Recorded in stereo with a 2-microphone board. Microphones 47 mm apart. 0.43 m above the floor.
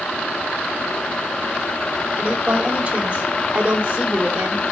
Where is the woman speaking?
30° right (ahead or behind), 2 m.